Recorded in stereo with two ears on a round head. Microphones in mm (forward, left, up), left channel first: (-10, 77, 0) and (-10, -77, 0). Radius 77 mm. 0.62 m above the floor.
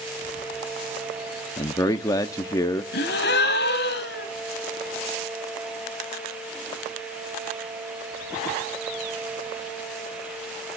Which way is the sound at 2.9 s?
70° left (ahead or behind).